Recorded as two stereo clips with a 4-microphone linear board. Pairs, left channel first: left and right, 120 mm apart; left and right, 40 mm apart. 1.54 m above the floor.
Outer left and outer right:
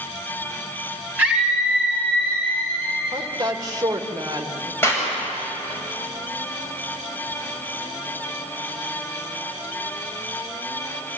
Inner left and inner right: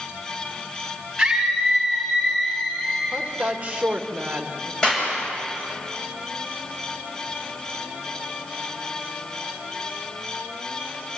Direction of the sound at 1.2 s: 15° right (ahead or behind).